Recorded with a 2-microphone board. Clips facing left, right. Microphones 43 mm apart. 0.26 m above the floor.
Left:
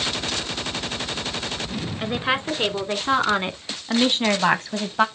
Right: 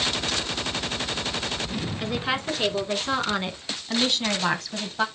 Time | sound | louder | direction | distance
2.0 | a woman speaking | left 4 dB | 20° left (ahead or behind) | 4 m